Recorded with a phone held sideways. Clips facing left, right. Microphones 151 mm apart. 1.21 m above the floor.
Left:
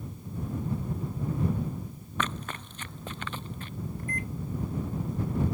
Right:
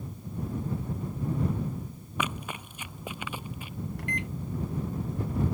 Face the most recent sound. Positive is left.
turn(degrees=-80)